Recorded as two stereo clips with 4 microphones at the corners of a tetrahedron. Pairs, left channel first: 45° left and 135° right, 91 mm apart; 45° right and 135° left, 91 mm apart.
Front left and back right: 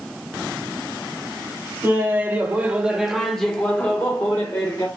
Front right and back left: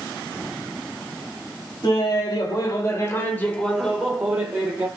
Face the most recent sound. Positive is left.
turn(degrees=80)